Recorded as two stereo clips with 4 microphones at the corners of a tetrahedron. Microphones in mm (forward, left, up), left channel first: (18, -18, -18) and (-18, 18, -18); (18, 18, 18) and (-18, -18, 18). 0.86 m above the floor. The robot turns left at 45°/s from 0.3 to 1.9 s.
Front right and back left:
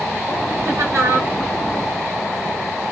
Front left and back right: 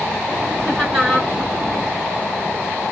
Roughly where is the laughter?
Behind.